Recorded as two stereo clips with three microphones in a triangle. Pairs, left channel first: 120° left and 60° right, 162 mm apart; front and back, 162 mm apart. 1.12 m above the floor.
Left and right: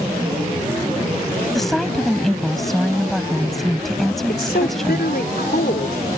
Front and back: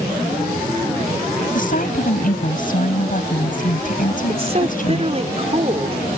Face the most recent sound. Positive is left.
turn(degrees=130)